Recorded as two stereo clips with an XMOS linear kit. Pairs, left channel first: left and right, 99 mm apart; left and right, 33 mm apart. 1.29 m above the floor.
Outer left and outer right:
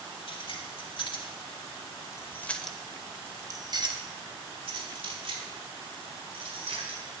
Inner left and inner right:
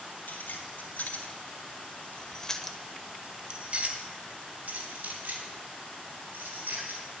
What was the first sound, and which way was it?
Keys jangling, 70° left (ahead or behind).